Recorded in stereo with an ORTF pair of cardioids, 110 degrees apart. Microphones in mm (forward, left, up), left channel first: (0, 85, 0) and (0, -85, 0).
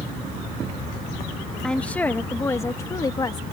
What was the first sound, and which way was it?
A woman speaking, 5° left.